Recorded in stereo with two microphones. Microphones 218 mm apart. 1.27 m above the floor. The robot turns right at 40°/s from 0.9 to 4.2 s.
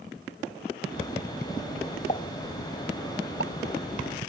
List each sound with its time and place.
2.1 s a pop: 35° left (ahead or behind); by 3.5 s 90° left